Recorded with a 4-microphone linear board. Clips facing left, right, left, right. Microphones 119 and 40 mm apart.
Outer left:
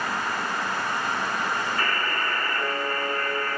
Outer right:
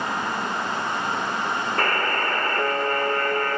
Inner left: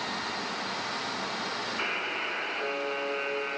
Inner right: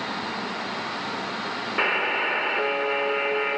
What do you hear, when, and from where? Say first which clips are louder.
1.8 s a buzzer: outer right 4 dB, inner right 11 dB; 55° right (ahead or behind), 1.4 m